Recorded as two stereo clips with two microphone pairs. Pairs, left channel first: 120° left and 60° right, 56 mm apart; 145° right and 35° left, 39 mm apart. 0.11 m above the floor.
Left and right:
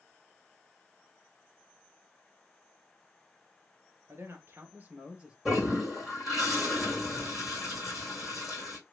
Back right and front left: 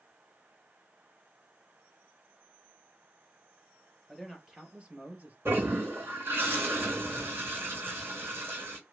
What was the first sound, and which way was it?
A man speaking, 50° right.